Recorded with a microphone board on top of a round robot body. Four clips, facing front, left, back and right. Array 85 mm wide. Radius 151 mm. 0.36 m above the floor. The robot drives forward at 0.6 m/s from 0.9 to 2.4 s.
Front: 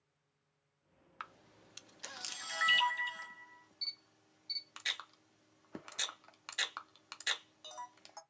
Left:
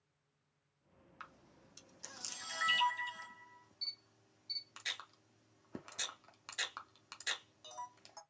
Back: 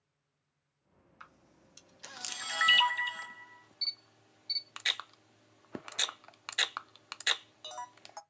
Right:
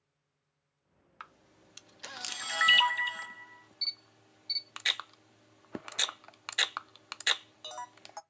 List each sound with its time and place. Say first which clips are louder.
1.2 s a camera shutter: right 4 dB, front 6 dB; 30° right, 0.7 m; by 8.2 s 120° right, 0.5 m